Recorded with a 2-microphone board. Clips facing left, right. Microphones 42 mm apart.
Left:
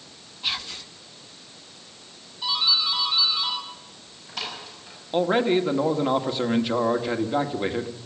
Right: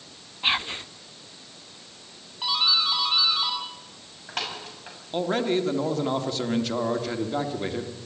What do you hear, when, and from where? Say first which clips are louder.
0.4 s whispering: right 5 dB; 30° right (ahead or behind), 0.6 m
2.4 s a doorbell: right 1 dB; 50° right (ahead or behind), 7 m
5.1 s a man speaking: left 4 dB; 20° left (ahead or behind), 1.7 m